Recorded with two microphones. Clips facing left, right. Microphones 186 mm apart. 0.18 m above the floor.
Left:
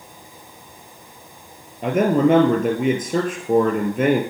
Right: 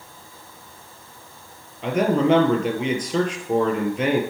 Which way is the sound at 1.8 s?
55° left (ahead or behind).